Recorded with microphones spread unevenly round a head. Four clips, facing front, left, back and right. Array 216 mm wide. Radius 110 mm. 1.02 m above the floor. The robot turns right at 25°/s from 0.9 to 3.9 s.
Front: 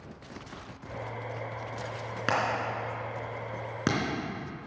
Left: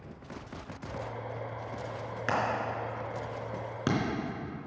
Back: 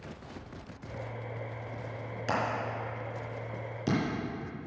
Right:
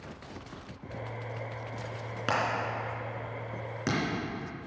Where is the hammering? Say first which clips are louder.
Even, front 3 dB; 30° right, 3 m; by 4.0 s 10° left, 3 m.